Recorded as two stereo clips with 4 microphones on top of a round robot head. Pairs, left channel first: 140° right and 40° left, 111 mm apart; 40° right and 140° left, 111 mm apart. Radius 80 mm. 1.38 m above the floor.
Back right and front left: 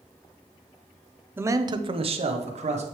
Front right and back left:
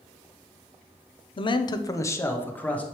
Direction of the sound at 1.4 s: 30° right.